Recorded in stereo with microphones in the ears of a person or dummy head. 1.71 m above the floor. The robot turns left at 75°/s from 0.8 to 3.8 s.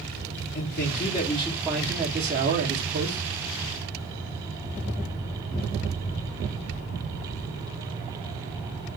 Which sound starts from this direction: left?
A man speaking, at 0.6 s.